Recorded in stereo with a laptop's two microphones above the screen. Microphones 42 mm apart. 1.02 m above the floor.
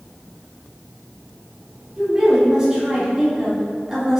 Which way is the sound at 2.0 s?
15° right (ahead or behind).